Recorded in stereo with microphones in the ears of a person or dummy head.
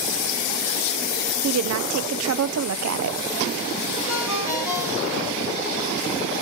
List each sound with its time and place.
1.4 s a woman speaking: 75° right (ahead or behind), 0.6 m
4.1 s a ringtone: 15° right (ahead or behind), 6 m